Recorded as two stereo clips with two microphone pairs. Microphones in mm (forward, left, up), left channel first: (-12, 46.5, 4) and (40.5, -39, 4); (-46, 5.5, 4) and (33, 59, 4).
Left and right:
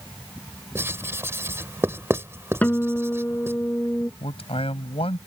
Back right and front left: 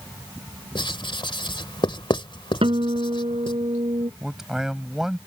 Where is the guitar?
45° left.